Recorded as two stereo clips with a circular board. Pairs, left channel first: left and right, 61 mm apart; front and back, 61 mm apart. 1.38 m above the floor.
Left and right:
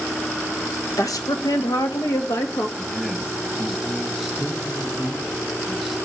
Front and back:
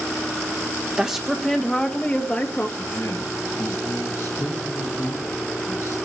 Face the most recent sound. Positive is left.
turn(degrees=0)